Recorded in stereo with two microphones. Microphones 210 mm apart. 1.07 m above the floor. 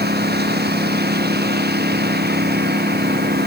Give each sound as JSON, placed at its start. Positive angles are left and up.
{"t": 0.0, "sound": "a lawn mower", "side_deg": -50}